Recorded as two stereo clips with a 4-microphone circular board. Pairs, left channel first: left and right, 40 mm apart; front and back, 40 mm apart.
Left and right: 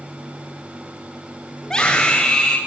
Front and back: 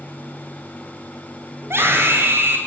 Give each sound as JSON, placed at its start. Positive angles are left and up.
{"t": 1.6, "sound": "a scream", "azimuth_deg": 165, "distance_m": 9.5}